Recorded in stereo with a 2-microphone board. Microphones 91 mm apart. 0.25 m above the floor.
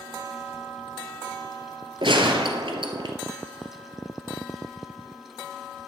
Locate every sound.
2.0 s a gunshot: 65° right (ahead or behind), 0.9 m